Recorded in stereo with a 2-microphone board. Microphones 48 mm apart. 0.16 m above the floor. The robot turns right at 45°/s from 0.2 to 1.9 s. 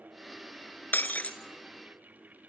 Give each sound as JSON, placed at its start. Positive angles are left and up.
{"t": 0.9, "sound": "breaking glass", "side_deg": 45, "distance_m": 1.6}